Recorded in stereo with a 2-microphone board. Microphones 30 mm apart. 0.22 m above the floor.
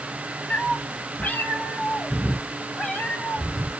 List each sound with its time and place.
0.5 s a cat meowing: 55° left (ahead or behind), 0.6 m; by 3.7 s 80° left, 2.5 m